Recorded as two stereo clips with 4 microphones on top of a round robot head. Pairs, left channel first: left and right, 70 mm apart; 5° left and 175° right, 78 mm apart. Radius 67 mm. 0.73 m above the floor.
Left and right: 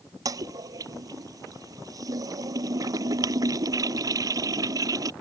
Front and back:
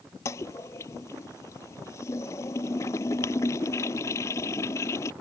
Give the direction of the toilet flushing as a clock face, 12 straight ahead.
2 o'clock.